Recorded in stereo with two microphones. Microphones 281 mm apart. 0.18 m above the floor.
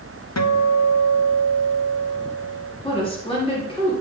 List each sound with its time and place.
0.4 s a guitar: 70° left (ahead or behind), 0.5 m
2.8 s a woman speaking: 20° left (ahead or behind), 2 m